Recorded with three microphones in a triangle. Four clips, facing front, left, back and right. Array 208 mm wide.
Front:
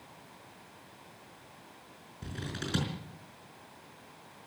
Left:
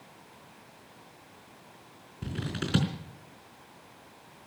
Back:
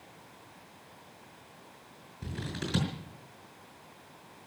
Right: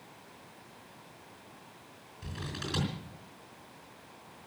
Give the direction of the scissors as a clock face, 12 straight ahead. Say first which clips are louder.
Left 6 dB, back 2 dB; 9 o'clock.